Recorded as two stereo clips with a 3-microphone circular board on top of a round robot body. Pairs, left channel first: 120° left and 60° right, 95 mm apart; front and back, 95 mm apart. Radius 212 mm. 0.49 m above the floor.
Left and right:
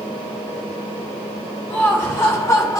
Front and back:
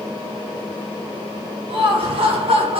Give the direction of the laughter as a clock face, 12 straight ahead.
6 o'clock.